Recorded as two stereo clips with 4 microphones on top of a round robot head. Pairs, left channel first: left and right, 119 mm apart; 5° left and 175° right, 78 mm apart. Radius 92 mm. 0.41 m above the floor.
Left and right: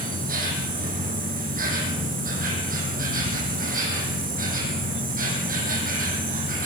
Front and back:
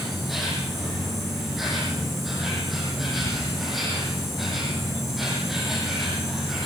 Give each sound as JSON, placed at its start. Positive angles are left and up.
{"t": 0.0, "sound": "an insect", "azimuth_deg": -85, "distance_m": 5.0}